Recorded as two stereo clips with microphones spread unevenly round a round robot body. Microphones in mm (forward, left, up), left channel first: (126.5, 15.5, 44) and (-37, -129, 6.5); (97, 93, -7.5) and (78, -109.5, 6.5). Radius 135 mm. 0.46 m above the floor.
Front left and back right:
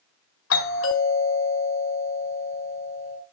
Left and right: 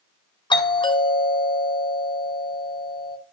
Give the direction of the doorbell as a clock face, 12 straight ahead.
11 o'clock.